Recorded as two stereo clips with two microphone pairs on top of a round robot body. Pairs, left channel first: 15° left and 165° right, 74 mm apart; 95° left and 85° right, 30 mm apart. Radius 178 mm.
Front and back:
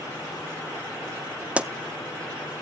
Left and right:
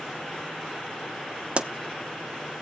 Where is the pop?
105° right, 0.8 m.